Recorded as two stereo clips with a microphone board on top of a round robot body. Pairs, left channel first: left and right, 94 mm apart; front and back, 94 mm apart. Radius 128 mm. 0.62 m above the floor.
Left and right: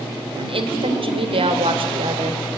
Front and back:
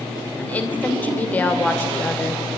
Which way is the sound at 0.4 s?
75° right.